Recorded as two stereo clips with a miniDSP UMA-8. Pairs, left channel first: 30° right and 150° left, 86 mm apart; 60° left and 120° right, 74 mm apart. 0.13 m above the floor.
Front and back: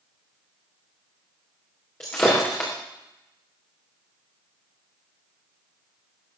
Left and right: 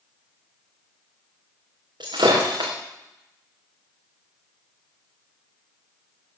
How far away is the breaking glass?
About 5 m.